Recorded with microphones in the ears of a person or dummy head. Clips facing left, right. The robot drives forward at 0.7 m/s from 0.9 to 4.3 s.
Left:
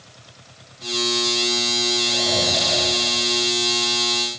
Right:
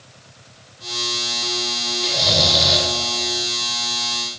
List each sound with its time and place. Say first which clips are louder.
2.0 s snoring: right 5 dB; 45° right (ahead or behind), 3 m; by 2.9 s 55° right (ahead or behind), 3 m